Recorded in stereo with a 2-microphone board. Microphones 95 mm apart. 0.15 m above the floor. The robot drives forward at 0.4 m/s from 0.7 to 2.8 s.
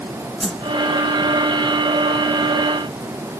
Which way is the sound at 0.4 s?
5° left (ahead or behind).